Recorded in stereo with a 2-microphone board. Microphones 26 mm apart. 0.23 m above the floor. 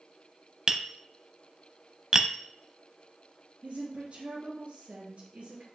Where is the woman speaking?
50° right (ahead or behind), 3 m.